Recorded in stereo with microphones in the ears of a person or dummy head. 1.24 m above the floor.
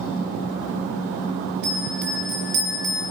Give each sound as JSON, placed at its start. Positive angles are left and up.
{"t": 1.6, "sound": "a bell", "side_deg": -70, "distance_m": 5.5}